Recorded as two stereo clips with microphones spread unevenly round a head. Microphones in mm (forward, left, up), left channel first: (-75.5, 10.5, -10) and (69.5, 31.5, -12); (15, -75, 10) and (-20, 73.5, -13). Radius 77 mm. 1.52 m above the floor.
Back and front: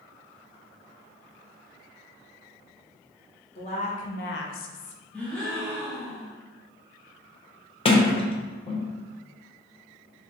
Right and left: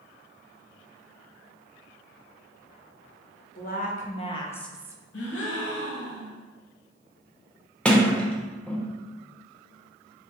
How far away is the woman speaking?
About 1.2 m.